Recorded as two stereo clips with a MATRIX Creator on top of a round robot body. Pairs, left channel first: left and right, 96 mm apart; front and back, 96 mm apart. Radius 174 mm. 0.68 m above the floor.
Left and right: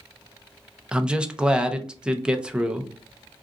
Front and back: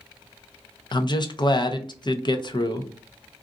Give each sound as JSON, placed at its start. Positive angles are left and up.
{"t": 0.9, "sound": "a man speaking", "azimuth_deg": -10, "distance_m": 0.7}